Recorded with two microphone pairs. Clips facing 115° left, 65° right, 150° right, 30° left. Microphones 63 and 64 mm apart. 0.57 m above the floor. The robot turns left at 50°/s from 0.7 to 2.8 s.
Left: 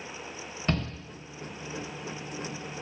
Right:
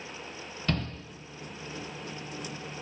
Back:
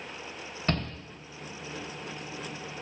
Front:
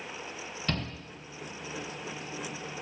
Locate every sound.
0.7 s a shout: 170° left, 1.0 m; by 0.9 s 160° left, 1.0 m